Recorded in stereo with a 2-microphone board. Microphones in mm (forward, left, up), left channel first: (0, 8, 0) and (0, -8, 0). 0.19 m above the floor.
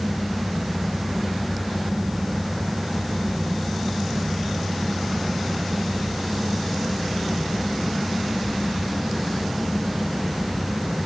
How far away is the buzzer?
No buzzer in this recording.